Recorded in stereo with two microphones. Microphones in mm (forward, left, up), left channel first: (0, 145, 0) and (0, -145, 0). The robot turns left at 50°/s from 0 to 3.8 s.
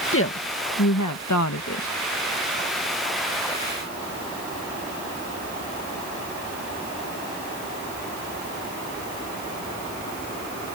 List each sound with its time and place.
0.1 s a woman speaking: 135° left; by 1.9 s 45° left